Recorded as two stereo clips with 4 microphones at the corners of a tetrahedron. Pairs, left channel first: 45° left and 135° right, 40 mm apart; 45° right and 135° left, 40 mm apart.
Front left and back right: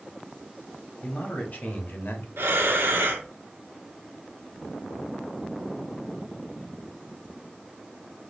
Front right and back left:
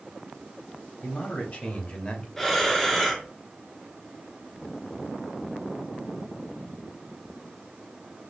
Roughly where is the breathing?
Behind right.